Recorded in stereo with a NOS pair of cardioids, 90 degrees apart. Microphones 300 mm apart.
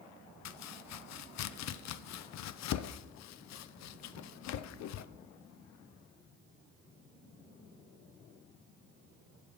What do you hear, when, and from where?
0.5 s chopping: 60° left, 0.5 m